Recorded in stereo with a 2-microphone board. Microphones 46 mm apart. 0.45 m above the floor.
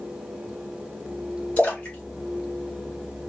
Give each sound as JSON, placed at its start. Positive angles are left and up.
{"t": 1.6, "sound": "a splash", "side_deg": 35, "distance_m": 2.0}